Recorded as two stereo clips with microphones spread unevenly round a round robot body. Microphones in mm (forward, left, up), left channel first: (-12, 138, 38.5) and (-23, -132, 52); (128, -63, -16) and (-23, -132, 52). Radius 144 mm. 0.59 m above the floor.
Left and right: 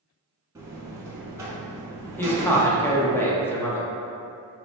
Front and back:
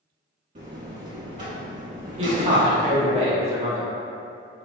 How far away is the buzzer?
About 0.8 m.